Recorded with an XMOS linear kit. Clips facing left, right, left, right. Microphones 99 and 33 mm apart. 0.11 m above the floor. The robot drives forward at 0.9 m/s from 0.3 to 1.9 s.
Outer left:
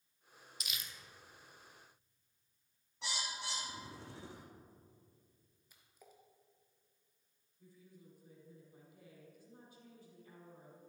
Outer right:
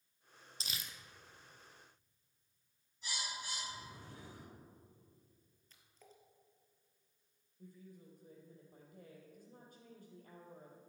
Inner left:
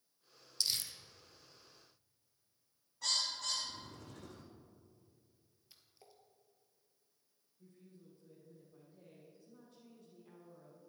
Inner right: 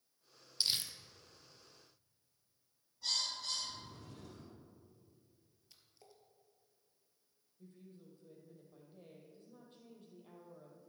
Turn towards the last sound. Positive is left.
turn(degrees=-50)  # may be behind; listen again after turning